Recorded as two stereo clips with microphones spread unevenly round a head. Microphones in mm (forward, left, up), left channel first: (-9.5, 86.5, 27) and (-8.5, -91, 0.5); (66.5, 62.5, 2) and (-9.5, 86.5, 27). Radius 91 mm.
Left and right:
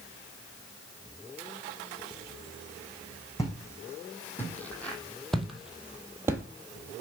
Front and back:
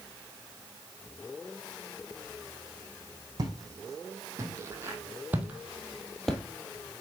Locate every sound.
3.4 s footsteps: 155° left, 2.5 m; by 6.4 s 150° right, 1.2 m